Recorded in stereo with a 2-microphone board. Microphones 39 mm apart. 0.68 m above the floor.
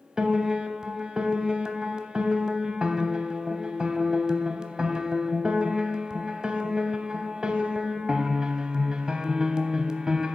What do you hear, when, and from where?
0.2 s a piano: 20° right (ahead or behind), 0.6 m